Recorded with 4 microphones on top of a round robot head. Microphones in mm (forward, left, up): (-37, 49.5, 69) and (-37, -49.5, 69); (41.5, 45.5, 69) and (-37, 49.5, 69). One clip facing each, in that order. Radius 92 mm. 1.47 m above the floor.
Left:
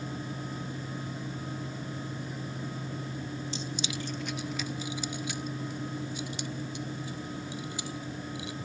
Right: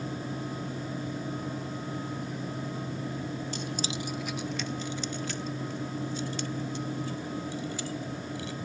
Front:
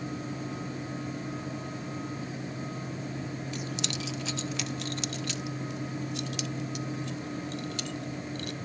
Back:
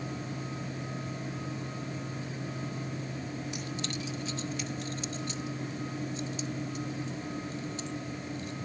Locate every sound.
3.5 s keys jangling: 105° right; by 8.6 s 15° left